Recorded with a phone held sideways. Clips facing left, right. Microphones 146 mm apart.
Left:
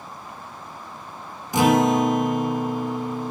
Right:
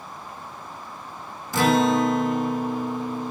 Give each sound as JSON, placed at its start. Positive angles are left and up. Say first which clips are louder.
{"t": 1.5, "sound": "a guitar", "louder": "left 2 dB", "side_deg": 20, "distance_m": 0.7}